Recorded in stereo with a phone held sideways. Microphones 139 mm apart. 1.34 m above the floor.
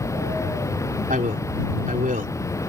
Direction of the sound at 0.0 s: 20° left (ahead or behind).